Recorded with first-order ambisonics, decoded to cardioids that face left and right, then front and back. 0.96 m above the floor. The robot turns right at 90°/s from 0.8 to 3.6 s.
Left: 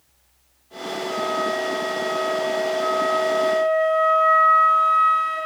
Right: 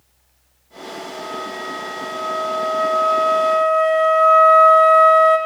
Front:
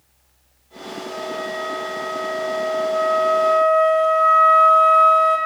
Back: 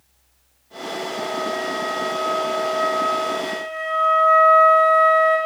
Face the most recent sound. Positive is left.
turn(degrees=-55)